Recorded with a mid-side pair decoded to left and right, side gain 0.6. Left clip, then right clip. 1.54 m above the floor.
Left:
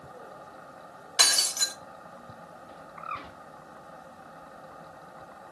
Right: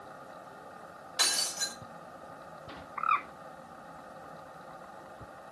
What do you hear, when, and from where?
1.2 s breaking glass: 55° left, 2.5 m
3.0 s a bird: 50° right, 0.5 m